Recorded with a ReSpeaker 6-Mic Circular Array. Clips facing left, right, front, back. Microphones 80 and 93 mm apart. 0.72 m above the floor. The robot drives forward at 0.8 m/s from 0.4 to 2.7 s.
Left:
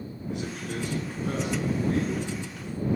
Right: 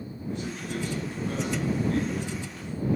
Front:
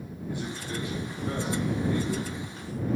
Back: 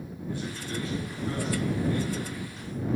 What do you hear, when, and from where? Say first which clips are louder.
0.3 s a man speaking: even, even; 75° left, 7.5 m; by 3.0 s 85° left, 7 m